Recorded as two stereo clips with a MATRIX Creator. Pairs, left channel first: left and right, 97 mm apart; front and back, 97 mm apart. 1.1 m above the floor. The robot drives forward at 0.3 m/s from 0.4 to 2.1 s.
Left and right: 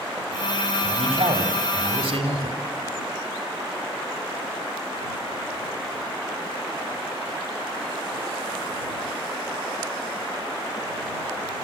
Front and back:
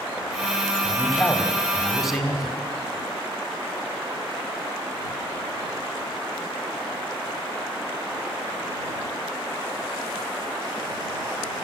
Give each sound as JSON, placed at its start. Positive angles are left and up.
{"t": 0.8, "sound": "a man speaking", "azimuth_deg": -85, "distance_m": 3.5}